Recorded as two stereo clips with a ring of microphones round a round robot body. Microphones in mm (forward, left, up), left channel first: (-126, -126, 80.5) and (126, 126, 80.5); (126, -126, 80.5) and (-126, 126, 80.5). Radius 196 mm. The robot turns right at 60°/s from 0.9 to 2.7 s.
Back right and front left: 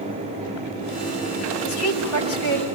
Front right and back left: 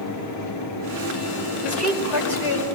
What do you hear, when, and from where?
1.6 s a woman speaking: 125° right, 6.5 m; by 2.6 s 65° right, 6.5 m